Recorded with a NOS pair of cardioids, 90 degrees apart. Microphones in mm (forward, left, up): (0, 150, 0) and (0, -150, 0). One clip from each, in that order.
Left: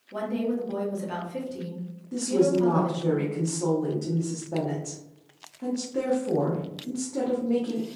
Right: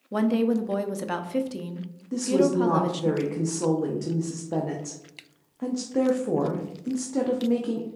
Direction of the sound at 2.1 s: 20° right.